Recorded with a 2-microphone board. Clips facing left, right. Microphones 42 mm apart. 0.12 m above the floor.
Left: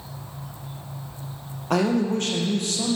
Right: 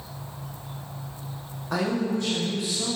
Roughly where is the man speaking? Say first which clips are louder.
Left 4 dB; left.